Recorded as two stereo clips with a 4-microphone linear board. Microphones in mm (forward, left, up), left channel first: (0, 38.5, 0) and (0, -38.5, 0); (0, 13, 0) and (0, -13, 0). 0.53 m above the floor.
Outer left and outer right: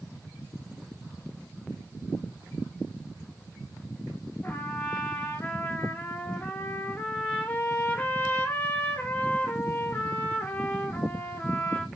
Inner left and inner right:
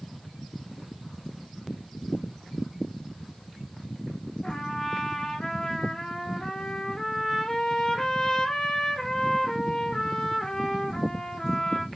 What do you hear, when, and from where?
4.4 s a trumpet: 20° left (ahead or behind), 1.1 m